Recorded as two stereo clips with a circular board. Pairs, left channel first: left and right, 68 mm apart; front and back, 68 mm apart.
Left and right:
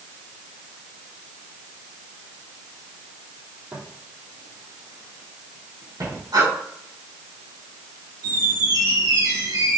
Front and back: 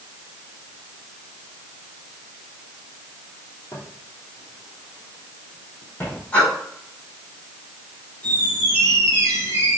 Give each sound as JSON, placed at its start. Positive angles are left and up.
{"t": 3.7, "sound": "footsteps", "azimuth_deg": -30, "distance_m": 3.0}
{"t": 6.3, "sound": "breathing", "azimuth_deg": -70, "distance_m": 4.5}
{"t": 8.2, "sound": "a squeak", "azimuth_deg": -65, "distance_m": 3.0}